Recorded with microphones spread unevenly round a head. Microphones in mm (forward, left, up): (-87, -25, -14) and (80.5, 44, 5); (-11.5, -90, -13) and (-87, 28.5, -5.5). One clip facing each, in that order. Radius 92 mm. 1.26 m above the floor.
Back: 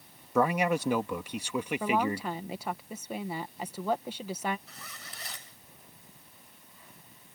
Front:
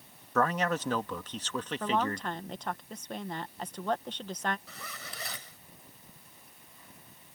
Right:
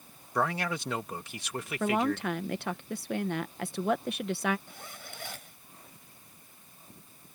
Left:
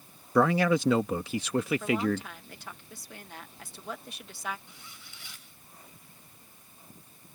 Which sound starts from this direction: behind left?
A man speaking, at 0.3 s.